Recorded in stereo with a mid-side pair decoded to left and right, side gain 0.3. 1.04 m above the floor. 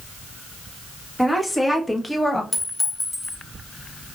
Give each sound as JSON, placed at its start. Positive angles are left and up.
{"t": 1.2, "sound": "a woman speaking", "azimuth_deg": 20, "distance_m": 1.6}
{"t": 2.5, "sound": "a clink", "azimuth_deg": 35, "distance_m": 1.7}